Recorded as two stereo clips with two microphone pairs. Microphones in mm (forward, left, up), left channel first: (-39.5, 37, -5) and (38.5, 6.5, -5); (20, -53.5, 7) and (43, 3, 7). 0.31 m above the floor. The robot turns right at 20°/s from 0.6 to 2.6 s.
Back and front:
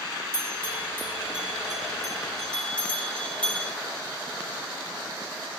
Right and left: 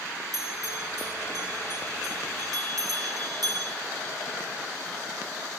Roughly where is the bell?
Ahead left.